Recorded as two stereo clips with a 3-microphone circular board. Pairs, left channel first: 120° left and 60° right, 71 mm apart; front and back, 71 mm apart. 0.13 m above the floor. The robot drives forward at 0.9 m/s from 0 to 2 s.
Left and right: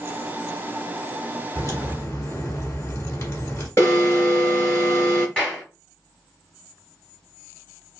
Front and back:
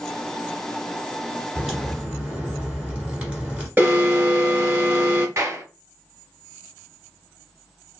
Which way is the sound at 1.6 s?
95° left.